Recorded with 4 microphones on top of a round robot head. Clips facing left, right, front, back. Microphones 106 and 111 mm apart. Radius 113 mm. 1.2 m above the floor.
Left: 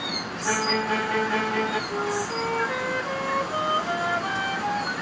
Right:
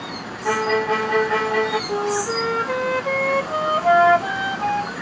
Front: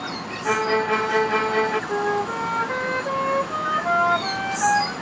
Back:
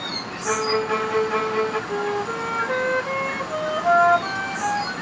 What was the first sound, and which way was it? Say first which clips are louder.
A violin: right 6 dB, front 1 dB; 35° right.